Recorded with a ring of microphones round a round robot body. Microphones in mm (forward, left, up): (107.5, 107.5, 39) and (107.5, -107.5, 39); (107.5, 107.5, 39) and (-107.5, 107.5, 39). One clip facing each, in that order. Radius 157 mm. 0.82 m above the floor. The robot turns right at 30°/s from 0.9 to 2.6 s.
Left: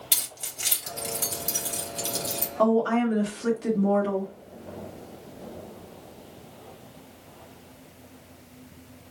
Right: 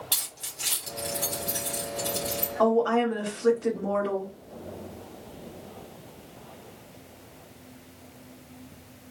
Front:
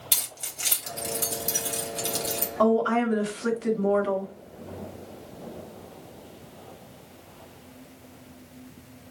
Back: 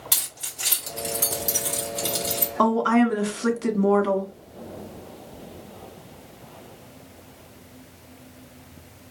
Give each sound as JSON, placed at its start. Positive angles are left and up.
{"t": 0.1, "sound": "keys jangling", "azimuth_deg": 60, "distance_m": 3.0}
{"t": 2.6, "sound": "a woman speaking", "azimuth_deg": 155, "distance_m": 1.6}